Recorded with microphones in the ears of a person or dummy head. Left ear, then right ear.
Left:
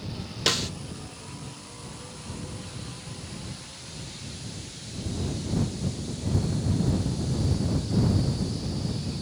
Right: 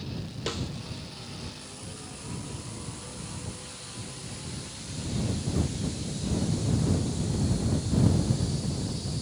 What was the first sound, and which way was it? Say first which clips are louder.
A snare drum: left 9 dB; 45° left (ahead or behind).